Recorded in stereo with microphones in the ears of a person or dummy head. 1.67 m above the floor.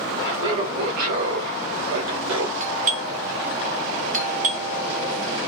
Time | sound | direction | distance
0.2 | laughter | 30° right (ahead or behind) | 1.1 m
2.6 | a doorbell | 40° right (ahead or behind) | 0.6 m